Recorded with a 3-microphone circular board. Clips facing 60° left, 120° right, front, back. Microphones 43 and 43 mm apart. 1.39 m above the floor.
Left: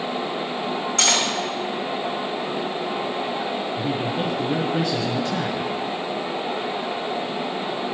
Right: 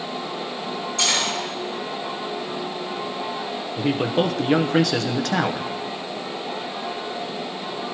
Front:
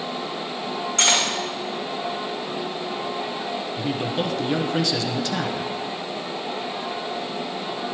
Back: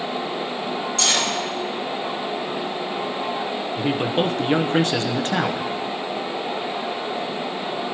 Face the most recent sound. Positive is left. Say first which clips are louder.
# right 8 dB, back 5 dB
turn(degrees=-130)